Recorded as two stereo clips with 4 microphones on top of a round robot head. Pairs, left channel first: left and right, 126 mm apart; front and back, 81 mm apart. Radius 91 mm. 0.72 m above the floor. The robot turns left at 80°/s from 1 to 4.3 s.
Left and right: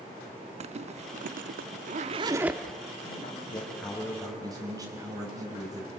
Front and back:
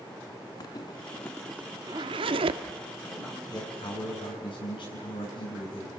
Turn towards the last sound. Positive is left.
turn(degrees=-30)